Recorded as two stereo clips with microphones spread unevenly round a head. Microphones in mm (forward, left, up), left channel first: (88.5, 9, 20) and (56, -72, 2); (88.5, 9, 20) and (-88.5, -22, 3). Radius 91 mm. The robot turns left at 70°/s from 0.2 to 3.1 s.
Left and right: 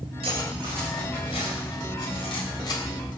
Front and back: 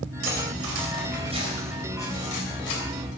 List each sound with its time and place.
0.2 s cutlery clinking: 155° right, 3.5 m; by 2.8 s 25° left, 3.5 m